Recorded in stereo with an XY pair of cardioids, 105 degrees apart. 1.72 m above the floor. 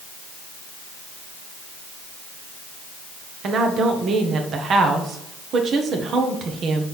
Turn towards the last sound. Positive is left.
turn(degrees=-60)